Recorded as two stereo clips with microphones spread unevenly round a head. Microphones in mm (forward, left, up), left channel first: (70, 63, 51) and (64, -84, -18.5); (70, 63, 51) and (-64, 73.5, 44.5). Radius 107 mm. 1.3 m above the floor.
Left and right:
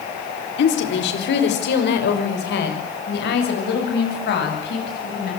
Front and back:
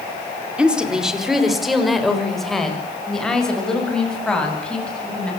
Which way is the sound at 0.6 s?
90° left.